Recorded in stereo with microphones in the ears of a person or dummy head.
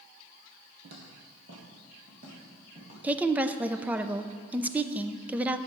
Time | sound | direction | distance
0.8 | footsteps | 60° right (ahead or behind) | 2.5 m
3.0 | a woman speaking | 10° right (ahead or behind) | 0.6 m